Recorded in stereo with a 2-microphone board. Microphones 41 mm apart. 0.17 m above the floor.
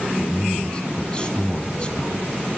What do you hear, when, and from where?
0.2 s a man speaking: 25° left (ahead or behind), 1.6 m